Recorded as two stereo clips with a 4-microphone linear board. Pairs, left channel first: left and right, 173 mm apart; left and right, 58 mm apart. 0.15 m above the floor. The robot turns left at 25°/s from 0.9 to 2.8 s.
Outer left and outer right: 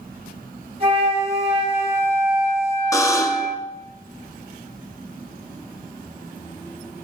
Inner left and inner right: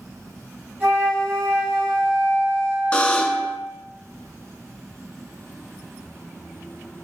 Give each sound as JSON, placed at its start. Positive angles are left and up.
{"t": 0.8, "sound": "a flute", "azimuth_deg": -65, "distance_m": 2.0}
{"t": 2.9, "sound": "a buzzer", "side_deg": 20, "distance_m": 0.5}